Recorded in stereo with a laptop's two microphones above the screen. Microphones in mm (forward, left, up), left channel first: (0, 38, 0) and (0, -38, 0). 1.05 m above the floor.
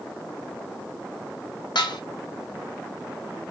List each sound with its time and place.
1.8 s dishes clattering: 75° left (ahead or behind), 0.7 m